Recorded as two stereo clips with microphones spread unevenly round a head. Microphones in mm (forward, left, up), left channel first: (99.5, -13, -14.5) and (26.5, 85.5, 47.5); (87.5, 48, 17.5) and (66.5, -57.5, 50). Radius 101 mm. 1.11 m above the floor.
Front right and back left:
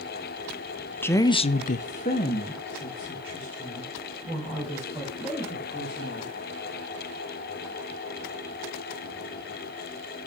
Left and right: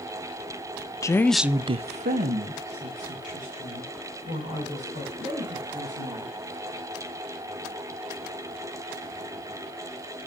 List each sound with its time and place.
1.0 s a woman speaking: 20° left, 0.8 m; by 6.3 s 120° right, 6 m